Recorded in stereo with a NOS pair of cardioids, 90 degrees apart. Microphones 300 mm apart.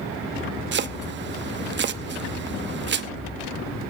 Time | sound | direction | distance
0.7 | chopping | 40° right | 0.9 m